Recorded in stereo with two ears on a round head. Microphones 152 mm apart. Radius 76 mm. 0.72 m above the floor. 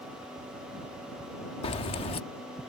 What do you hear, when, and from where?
1.6 s keys jangling: 35° left (ahead or behind)